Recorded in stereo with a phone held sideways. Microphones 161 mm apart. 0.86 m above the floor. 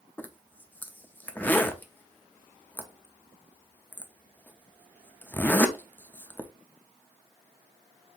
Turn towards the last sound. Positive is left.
turn(degrees=10)  # may be behind; listen again after turning